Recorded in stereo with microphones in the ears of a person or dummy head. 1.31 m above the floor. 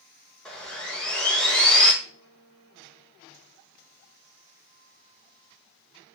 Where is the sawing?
5° left (ahead or behind), 0.6 m.